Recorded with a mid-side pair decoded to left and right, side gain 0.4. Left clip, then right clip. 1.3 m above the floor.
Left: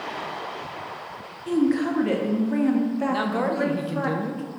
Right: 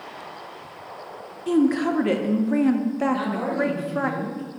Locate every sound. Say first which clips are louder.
1.5 s a woman speaking: right 2 dB; 35° right, 0.7 m
3.1 s a man speaking: left 1 dB; 65° left, 0.8 m